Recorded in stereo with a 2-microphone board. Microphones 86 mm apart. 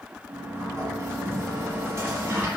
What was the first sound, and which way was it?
A sliding door, 35° right (ahead or behind).